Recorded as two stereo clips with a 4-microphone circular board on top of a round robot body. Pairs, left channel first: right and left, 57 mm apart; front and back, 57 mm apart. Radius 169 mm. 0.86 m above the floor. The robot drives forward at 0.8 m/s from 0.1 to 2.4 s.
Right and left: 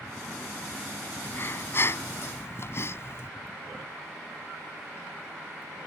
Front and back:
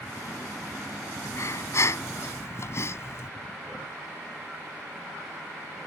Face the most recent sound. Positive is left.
turn(degrees=-45)